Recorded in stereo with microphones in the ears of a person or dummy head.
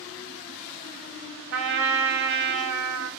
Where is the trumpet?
65° right (ahead or behind), 1.2 m.